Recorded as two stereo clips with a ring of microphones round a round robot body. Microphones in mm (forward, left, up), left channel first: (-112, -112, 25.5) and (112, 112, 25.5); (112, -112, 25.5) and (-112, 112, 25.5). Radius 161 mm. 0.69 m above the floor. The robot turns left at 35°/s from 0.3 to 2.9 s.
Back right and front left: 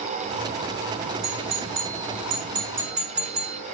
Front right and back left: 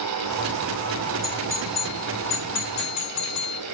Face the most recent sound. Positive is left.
turn(degrees=-15)